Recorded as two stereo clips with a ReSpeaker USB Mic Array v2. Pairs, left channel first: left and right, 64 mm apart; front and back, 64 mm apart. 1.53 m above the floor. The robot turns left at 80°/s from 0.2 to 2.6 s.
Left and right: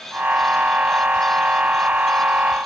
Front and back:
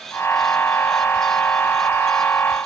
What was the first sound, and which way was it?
Only background noise.